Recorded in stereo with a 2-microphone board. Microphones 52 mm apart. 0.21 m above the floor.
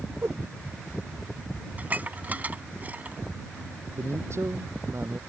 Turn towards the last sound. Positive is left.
turn(degrees=-55)  # may be behind; listen again after turning